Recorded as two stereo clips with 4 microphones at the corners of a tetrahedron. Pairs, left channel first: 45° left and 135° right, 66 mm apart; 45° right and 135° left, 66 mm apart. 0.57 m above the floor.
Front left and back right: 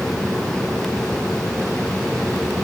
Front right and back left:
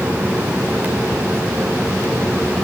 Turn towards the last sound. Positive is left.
No sound to turn to.